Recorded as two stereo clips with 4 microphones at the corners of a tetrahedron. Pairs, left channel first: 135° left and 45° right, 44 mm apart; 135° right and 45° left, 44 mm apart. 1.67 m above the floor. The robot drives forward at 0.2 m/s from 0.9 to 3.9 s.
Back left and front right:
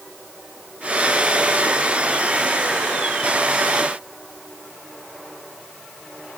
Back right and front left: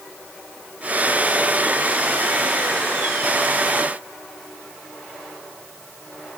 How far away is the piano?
I don't hear a piano.